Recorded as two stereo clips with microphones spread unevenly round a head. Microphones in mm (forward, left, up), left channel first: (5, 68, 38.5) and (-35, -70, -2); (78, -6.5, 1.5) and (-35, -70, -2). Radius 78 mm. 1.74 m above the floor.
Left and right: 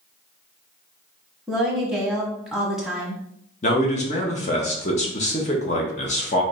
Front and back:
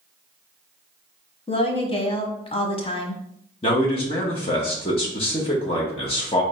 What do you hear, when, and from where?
1.5 s a woman speaking: 10° right, 1.1 m
3.6 s a man speaking: 75° left, 1.1 m